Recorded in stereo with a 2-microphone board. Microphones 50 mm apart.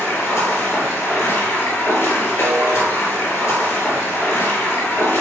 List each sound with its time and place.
0.0 s running water: 75° left (ahead or behind), 2.5 m
2.4 s a snare drum: 70° left (ahead or behind), 3.5 m